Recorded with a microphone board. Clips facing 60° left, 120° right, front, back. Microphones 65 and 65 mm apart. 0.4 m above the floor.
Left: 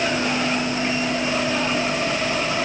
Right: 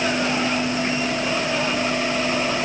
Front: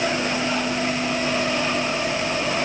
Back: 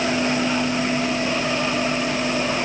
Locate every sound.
Only background noise.